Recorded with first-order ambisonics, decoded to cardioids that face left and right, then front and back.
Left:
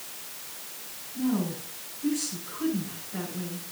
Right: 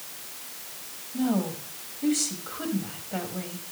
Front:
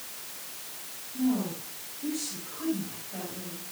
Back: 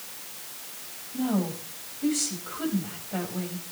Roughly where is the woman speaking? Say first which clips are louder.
Right 2 dB, back 1 dB; behind right.